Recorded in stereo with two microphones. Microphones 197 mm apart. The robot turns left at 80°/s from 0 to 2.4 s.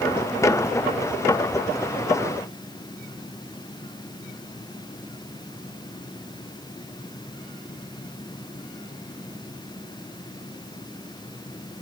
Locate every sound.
Only background noise.